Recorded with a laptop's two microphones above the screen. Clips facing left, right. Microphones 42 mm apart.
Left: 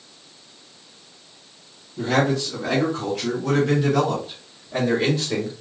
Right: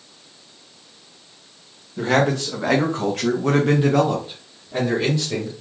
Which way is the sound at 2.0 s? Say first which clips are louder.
Right 2 dB; 75° right (ahead or behind).